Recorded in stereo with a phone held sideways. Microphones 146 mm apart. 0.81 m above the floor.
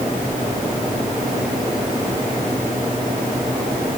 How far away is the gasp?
No gasp in this recording.